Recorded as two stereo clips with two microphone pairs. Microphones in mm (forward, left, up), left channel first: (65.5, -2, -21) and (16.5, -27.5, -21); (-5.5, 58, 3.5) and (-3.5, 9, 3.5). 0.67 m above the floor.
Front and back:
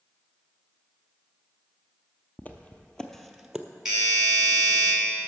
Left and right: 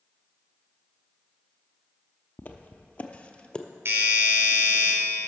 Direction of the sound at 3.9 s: 70° right.